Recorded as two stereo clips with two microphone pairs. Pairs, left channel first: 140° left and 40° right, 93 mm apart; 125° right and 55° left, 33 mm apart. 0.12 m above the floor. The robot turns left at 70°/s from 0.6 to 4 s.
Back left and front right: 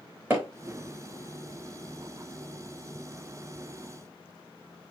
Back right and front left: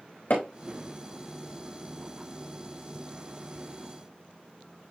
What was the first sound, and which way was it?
Hammering, 110° right.